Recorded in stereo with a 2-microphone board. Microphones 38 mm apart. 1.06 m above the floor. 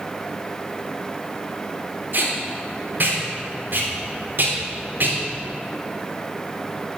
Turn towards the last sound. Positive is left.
turn(degrees=-55)  # may be behind; listen again after turning